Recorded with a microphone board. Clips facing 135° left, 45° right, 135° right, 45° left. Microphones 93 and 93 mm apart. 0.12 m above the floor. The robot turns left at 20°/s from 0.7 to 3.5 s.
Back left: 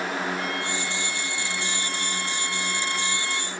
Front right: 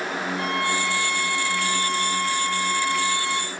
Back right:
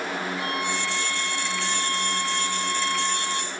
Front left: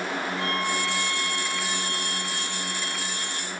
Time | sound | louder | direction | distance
0.4 | a violin | front right 5 dB, front left 1 dB | 60° right | 3 m